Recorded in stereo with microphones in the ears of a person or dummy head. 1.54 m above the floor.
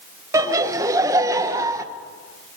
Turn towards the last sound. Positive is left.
turn(degrees=-20)  # may be behind; listen again after turning